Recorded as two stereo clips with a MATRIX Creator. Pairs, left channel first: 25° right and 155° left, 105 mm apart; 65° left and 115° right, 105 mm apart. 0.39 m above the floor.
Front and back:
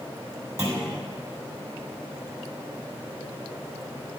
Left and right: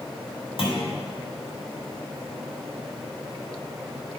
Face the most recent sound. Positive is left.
turn(degrees=95)